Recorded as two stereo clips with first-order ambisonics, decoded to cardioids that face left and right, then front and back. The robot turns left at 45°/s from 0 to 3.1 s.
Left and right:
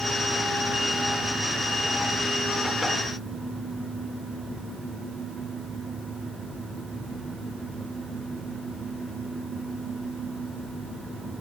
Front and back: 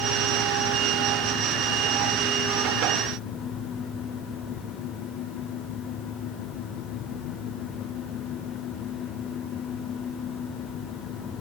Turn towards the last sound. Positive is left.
No sound to turn to.